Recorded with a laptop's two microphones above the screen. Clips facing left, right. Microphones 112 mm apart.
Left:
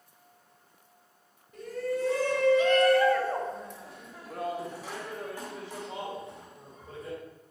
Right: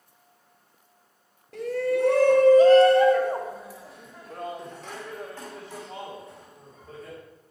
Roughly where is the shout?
Right.